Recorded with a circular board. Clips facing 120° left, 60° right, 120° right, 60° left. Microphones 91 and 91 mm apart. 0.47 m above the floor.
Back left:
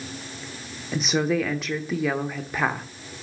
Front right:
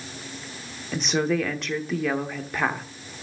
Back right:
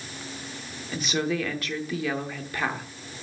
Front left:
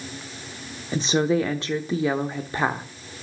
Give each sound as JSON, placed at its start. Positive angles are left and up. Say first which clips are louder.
{"t": 0.9, "sound": "a woman speaking", "louder": "back left 1 dB, front left 6 dB", "azimuth_deg": 35, "distance_m": 0.9}